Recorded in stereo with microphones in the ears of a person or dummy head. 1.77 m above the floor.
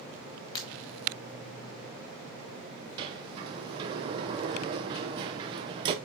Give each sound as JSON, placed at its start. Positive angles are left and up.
{"t": 0.6, "sound": "breaking glass", "side_deg": 25, "distance_m": 2.0}
{"t": 3.0, "sound": "a sliding door", "side_deg": -25, "distance_m": 0.8}